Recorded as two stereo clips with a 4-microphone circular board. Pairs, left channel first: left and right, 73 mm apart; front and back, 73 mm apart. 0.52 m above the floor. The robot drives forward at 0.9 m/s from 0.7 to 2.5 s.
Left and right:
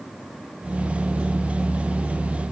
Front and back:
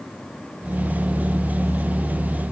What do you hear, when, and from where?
Only background noise.